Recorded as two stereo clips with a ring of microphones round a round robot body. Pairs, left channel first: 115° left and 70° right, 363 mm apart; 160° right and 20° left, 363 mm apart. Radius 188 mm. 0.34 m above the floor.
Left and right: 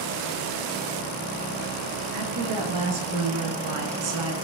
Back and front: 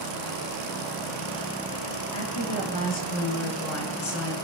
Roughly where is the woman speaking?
Right.